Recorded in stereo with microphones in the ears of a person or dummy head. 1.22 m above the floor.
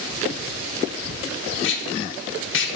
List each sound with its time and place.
1.6 s tape being pulled: 55° left (ahead or behind), 0.9 m